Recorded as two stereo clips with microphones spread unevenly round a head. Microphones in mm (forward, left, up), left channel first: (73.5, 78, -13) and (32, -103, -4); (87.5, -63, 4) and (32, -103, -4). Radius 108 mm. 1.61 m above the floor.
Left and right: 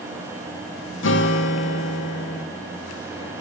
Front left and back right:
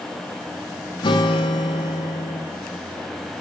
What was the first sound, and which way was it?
A guitar, 60° left.